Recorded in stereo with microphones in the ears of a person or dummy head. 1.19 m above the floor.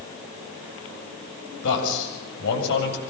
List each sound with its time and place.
1.6 s a man speaking: 65° left (ahead or behind), 7 m